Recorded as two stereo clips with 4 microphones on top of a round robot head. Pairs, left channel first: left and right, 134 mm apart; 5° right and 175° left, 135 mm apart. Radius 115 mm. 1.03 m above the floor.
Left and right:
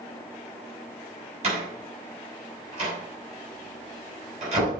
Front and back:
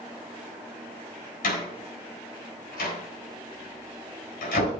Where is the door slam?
40° right, 7 m.